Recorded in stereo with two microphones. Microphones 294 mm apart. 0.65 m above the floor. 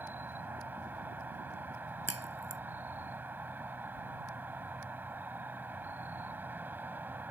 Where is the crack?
55° right (ahead or behind).